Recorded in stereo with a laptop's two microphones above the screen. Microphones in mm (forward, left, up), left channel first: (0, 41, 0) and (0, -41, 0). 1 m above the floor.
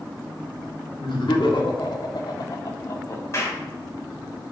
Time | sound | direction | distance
1.0 | laughter | 80° left | 1.9 m
3.3 | a clap | 35° left (ahead or behind) | 3 m